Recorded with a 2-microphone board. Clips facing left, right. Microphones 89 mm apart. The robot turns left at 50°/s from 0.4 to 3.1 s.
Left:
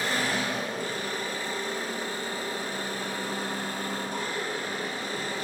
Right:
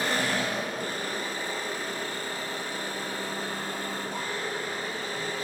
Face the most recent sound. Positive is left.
turn(degrees=115)